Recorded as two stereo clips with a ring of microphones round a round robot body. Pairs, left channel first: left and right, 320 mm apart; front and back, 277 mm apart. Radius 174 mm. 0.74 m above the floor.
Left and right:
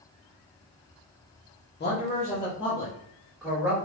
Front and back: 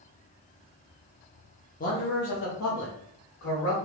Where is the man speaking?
45° left, 1.0 m; by 3.8 s straight ahead, 1.5 m.